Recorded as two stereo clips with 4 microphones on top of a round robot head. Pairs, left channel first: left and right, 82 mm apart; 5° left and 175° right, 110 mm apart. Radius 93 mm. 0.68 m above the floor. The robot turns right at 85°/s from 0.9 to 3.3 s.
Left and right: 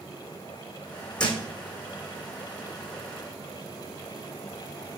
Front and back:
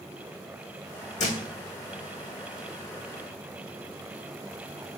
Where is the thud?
10° left, 2 m; by 1.4 s 25° left, 2 m.